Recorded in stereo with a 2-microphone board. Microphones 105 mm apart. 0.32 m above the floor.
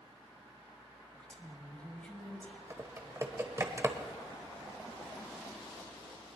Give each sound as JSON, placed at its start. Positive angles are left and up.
{"t": 1.1, "sound": "a woman speaking", "side_deg": 10, "distance_m": 2.0}
{"t": 2.7, "sound": "typing on a keyboard", "side_deg": -25, "distance_m": 1.2}